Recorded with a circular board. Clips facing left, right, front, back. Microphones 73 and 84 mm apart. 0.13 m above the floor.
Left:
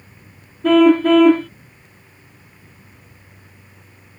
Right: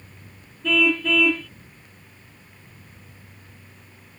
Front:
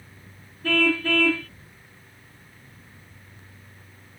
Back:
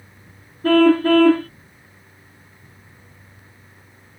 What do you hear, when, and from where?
0.6 s a car horn: 130° left